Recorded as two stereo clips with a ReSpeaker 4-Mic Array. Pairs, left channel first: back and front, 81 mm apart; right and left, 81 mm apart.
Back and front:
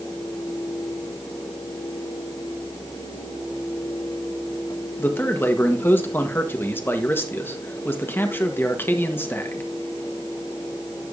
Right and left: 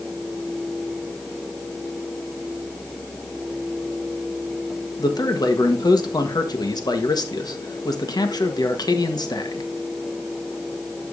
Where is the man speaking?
120° right, 1.3 m.